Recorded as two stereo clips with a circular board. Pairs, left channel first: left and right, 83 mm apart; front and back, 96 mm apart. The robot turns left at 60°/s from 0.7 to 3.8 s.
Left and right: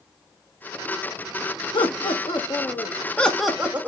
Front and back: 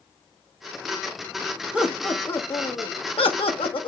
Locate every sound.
1.7 s laughter: 105° left, 1.1 m; by 3.9 s 20° right, 1.1 m